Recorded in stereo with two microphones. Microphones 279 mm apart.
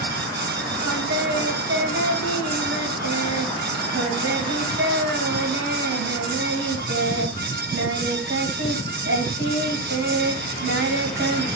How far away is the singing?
About 2.5 m.